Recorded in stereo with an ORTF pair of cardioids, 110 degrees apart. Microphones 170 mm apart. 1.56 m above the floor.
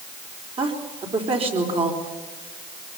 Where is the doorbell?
No doorbell in this recording.